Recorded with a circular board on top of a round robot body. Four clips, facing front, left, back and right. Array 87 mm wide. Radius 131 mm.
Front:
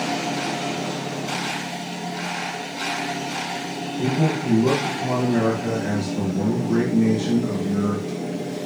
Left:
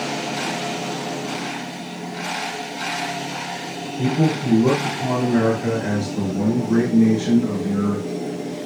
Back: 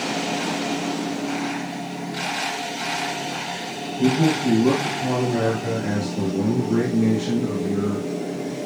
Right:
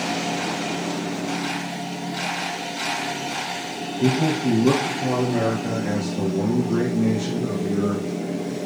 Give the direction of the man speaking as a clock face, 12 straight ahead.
10 o'clock.